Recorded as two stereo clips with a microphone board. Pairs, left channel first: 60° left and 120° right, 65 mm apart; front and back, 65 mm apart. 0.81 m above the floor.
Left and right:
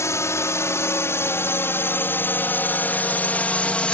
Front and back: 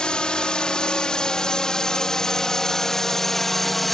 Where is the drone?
70° left; by 3.9 s 80° left.